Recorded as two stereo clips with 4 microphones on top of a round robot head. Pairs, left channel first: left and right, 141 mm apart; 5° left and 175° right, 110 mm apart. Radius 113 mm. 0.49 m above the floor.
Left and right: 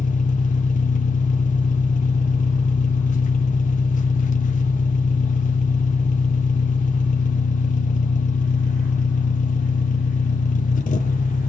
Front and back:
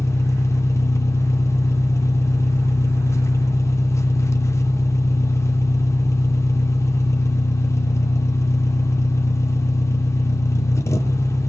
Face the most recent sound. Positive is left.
turn(degrees=70)